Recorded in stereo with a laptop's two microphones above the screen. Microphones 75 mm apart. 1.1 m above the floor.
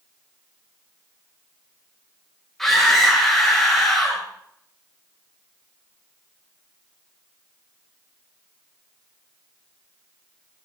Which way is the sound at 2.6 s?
5° left (ahead or behind).